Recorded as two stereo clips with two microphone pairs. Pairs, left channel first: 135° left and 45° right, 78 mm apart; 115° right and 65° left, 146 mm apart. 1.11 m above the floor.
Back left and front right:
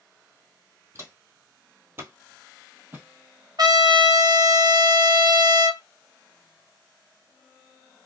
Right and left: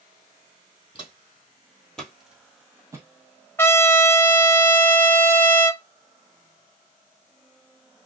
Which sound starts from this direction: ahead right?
A trumpet, at 3.6 s.